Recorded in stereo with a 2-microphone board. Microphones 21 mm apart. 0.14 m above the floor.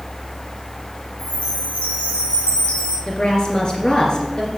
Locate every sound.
1.2 s a chime: 70° left (ahead or behind), 4 m
3.1 s a woman speaking: 40° left (ahead or behind), 2.5 m